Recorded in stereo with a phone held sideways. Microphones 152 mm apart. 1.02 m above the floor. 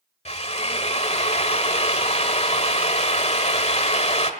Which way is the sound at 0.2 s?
45° left (ahead or behind).